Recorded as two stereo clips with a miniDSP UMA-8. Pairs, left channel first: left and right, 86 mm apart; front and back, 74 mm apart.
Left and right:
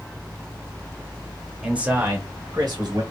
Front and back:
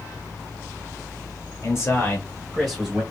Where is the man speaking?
10° right, 1.4 m; by 3.0 s 95° right, 1.8 m.